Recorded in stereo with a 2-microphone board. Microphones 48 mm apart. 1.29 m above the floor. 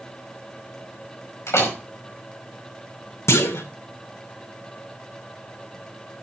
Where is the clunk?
70° left (ahead or behind), 1.8 m.